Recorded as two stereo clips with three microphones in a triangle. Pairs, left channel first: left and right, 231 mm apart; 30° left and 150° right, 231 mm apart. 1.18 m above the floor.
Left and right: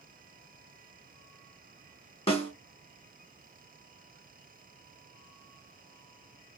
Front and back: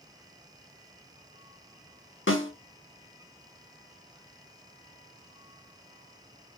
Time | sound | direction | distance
2.3 | a snare drum | 30° left | 1.1 m